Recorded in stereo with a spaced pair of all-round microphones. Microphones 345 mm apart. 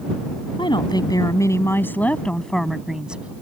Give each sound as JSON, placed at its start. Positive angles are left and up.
{"t": 0.6, "sound": "a woman speaking", "side_deg": 15}